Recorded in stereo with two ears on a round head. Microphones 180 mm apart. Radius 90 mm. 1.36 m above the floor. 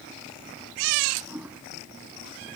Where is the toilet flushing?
10° right (ahead or behind).